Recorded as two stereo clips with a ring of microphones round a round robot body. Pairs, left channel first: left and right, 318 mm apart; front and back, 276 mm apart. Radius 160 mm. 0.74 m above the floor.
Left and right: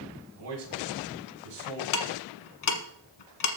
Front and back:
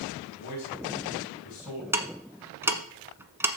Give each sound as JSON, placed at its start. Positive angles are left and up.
{"t": 0.3, "sound": "a man speaking", "azimuth_deg": -40, "distance_m": 4.5}
{"t": 1.9, "sound": "ticking", "azimuth_deg": 100, "distance_m": 1.4}